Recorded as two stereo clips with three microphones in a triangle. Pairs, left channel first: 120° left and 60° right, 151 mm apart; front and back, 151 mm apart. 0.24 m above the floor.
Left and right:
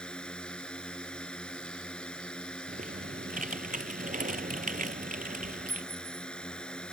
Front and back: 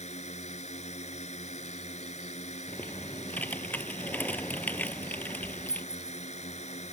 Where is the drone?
35° left.